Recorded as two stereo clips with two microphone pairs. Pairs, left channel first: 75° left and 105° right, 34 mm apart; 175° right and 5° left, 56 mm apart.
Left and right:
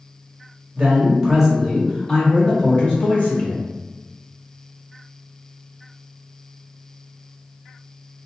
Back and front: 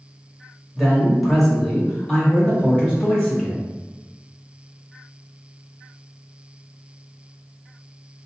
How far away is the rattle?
I don't hear a rattle.